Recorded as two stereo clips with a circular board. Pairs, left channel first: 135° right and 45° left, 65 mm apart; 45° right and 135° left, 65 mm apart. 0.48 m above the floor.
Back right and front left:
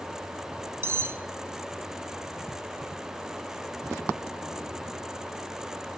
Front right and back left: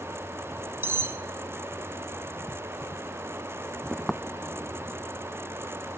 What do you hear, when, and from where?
0.8 s cutlery clinking: 90° left, 1.0 m